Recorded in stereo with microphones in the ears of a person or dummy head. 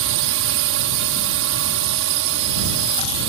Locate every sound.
0.0 s a drone: 60° right (ahead or behind)